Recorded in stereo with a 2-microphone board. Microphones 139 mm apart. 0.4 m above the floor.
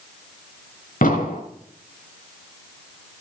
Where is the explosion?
80° left, 3.5 m.